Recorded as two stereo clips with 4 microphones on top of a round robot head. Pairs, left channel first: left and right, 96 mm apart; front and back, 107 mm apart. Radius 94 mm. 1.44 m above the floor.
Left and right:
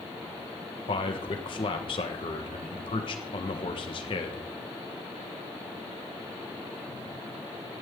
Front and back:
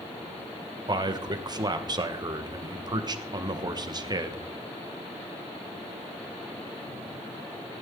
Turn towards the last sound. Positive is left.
turn(degrees=130)